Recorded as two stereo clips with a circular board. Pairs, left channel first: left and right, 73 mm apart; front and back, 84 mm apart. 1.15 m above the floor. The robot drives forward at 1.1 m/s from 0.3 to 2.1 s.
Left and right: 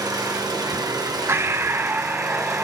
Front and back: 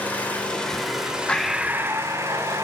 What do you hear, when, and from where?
0.0 s an engine running: 70° right, 2 m; by 2.6 s 125° right, 2.5 m
1.3 s breathing: 70° right, 0.8 m; by 2.6 s 145° right, 1.1 m